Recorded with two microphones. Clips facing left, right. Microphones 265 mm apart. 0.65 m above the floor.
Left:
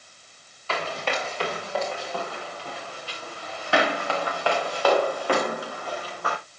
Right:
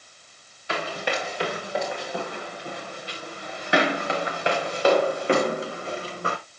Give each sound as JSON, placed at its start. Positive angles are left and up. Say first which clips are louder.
{"t": 0.7, "sound": "running footsteps", "louder": "right 1 dB", "side_deg": -15, "distance_m": 5.0}